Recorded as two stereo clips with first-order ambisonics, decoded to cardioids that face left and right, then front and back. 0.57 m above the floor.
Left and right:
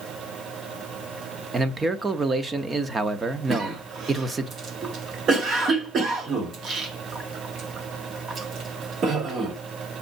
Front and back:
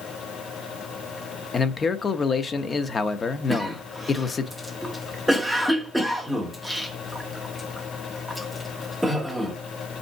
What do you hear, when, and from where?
1.5 s a man speaking: 35° right, 0.7 m
3.5 s a cough: 90° right, 1.2 m